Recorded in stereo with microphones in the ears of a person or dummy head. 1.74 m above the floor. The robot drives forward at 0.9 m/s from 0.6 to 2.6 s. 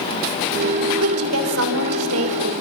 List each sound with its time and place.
1.0 s a woman speaking: 80° right, 6.5 m; by 2.5 s 85° right, 6.5 m